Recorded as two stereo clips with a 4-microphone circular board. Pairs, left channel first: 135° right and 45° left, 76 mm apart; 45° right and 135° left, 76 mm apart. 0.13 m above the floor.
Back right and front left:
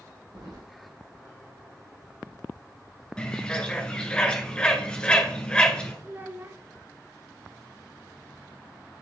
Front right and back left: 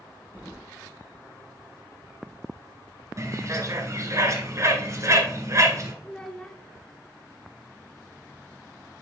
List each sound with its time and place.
0.3 s keys jangling: 65° left, 4 m
3.2 s a bird: 155° left, 1.4 m
6.0 s a child speaking: 25° left, 0.7 m